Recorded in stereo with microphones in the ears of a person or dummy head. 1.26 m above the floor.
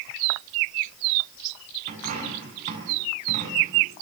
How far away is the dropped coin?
About 6.5 m.